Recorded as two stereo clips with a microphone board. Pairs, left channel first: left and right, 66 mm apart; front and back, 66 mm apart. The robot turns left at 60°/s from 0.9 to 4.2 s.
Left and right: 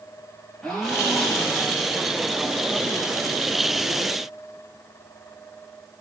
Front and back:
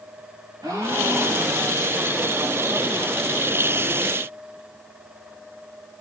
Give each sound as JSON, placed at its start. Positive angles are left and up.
{"t": 0.6, "sound": "a gasp", "azimuth_deg": 175, "distance_m": 6.0}